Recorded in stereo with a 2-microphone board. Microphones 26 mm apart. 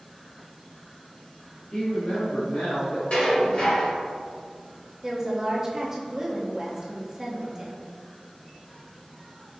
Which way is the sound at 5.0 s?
20° right (ahead or behind).